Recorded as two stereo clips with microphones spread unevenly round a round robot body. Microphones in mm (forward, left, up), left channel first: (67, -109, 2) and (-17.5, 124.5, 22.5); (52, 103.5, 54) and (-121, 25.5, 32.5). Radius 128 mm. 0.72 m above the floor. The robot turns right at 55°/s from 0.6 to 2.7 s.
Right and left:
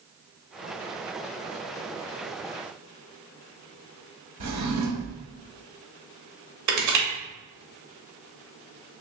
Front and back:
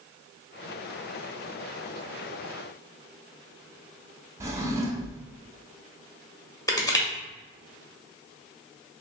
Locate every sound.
4.4 s a drawer: 130° left, 0.9 m
6.7 s crushing: 95° left, 1.2 m